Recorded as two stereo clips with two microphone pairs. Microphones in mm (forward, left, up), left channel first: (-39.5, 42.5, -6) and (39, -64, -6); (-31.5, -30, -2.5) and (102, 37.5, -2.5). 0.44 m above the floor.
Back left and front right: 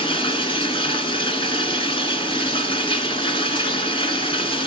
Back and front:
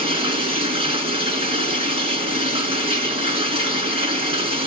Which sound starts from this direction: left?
Running water, at 0.0 s.